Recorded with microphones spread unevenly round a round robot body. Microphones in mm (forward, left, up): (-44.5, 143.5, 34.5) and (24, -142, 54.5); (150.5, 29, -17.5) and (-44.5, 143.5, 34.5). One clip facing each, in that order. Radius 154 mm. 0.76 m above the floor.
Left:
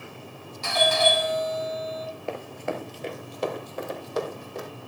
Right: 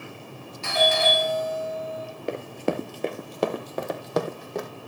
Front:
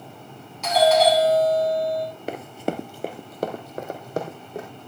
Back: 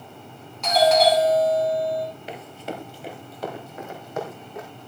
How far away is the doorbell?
About 7.5 m.